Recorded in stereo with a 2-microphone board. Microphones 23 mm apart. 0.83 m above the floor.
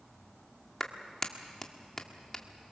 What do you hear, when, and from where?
0.8 s a clap: 20° left (ahead or behind), 1.6 m